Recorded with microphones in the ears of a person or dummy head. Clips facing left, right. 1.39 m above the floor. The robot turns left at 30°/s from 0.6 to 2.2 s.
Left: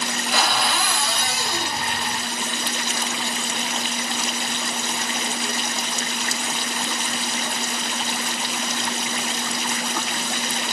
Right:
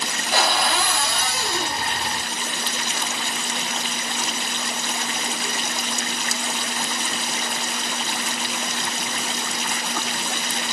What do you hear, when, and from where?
0.3 s a cupboard door: 40° right, 0.7 m; by 1.8 s 75° right, 0.7 m